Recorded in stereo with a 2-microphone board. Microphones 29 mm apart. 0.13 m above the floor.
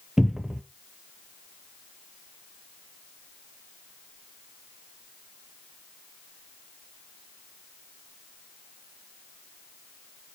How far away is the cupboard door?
About 0.8 m.